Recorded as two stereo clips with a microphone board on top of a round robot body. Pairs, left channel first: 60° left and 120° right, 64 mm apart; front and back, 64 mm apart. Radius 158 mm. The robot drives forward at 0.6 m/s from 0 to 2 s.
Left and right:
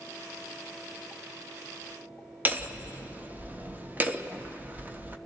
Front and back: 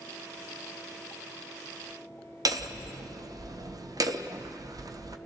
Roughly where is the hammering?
Behind.